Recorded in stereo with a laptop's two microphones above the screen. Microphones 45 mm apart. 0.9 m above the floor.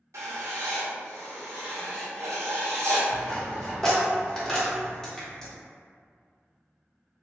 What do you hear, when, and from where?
0.1 s writing: 80° right, 0.6 m
3.1 s a dropped coin: 10° left (ahead or behind), 0.6 m
5.2 s a finger snap: 10° left (ahead or behind), 0.7 m